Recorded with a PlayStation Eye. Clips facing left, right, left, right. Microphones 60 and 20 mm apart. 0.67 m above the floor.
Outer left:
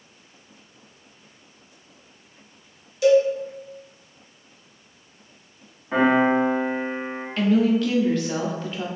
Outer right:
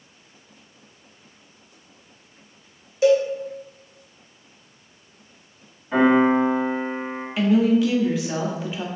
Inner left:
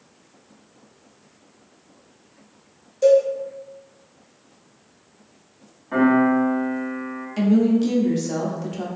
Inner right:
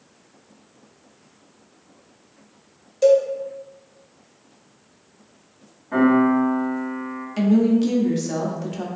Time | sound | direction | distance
3.0 | a cowbell | 30° right (ahead or behind) | 0.6 m
5.9 | a piano | 25° left (ahead or behind) | 1.7 m
7.4 | a woman speaking | 10° right (ahead or behind) | 0.5 m